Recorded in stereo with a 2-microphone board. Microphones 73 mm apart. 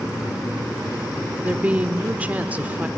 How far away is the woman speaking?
About 0.8 m.